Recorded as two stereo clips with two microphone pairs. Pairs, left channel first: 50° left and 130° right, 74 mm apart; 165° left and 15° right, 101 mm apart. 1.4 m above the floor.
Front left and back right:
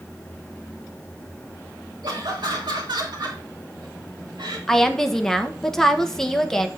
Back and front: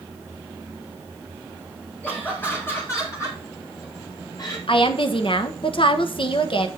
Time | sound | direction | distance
2.0 | laughter | 120° right | 2.0 m
4.7 | a woman speaking | 130° left | 1.2 m